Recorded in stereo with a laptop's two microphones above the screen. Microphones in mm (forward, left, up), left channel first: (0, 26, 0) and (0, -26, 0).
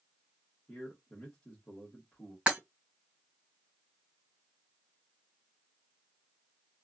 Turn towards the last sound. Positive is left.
turn(degrees=-20)  # may be behind; listen again after turning